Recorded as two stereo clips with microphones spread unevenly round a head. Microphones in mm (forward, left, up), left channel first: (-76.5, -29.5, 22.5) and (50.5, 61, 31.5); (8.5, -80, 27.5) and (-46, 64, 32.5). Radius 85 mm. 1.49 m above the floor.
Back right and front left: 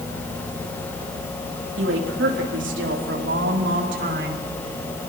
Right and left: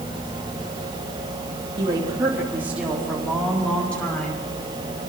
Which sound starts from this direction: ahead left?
A woman speaking, at 1.8 s.